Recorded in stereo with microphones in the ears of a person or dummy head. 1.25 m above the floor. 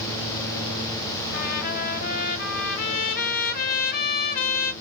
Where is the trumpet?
50° left (ahead or behind), 0.8 m.